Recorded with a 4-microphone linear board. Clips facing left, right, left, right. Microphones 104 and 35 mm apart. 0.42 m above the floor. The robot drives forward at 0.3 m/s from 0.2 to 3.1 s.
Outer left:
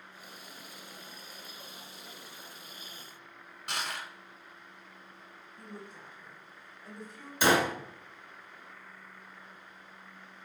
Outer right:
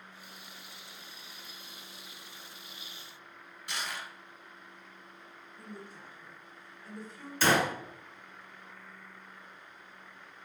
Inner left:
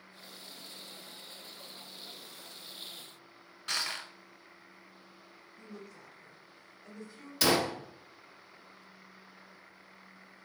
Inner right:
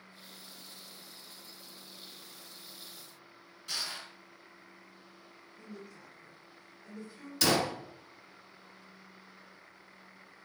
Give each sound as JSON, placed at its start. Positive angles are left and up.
{"t": 3.7, "sound": "crushing", "side_deg": 60, "distance_m": 0.7}
{"t": 5.6, "sound": "a woman speaking", "side_deg": 0, "distance_m": 1.0}
{"t": 7.4, "sound": "a gunshot", "side_deg": 15, "distance_m": 0.6}